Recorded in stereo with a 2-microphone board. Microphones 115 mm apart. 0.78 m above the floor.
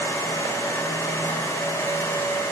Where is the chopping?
I don't hear chopping.